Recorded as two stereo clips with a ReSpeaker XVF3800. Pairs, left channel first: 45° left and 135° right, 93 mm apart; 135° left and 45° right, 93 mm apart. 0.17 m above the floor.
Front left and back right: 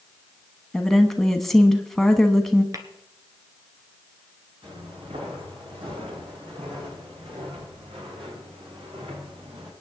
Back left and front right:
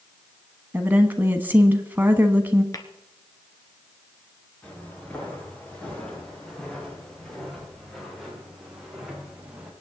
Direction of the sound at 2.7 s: Straight behind.